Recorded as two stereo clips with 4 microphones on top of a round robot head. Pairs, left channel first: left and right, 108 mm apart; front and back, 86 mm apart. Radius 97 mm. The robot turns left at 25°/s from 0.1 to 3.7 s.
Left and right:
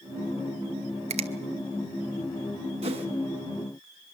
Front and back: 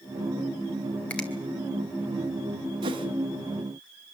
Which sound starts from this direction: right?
A finger snap, at 1.1 s.